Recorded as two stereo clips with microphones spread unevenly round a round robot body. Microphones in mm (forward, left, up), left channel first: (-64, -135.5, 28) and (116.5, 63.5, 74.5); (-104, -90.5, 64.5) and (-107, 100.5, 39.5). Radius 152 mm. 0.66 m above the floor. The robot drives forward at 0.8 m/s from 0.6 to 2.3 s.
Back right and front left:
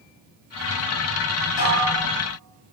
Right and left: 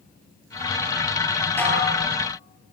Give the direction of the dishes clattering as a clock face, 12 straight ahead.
6 o'clock.